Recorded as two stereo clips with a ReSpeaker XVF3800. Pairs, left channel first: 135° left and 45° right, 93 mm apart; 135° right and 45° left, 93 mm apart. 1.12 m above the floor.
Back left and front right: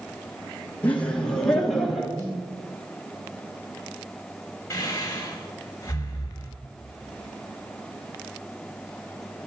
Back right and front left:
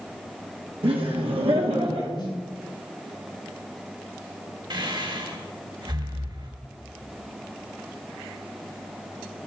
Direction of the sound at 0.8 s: 60° left.